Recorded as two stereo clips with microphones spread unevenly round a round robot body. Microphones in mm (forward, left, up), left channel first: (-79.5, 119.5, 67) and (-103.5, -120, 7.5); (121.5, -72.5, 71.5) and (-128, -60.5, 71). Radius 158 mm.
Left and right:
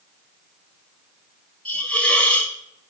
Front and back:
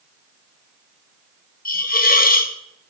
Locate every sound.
1.6 s a hiss: 20° right, 1.3 m